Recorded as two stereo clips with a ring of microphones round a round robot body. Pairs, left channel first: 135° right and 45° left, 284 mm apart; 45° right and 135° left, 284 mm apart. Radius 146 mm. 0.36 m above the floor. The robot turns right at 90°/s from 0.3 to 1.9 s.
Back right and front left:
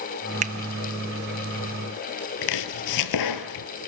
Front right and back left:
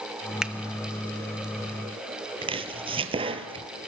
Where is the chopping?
155° right, 1.4 m.